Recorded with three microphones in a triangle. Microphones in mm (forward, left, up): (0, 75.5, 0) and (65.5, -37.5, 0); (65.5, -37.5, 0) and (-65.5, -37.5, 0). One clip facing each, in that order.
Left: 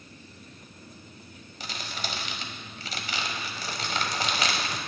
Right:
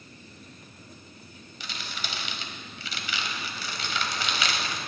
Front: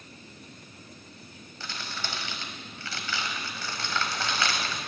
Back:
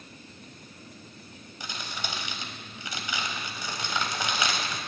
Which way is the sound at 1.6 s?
115° left.